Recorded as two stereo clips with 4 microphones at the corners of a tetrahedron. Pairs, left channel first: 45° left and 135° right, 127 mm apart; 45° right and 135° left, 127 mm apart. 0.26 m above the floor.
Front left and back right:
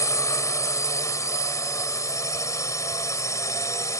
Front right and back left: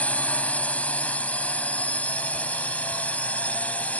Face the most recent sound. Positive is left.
turn(degrees=20)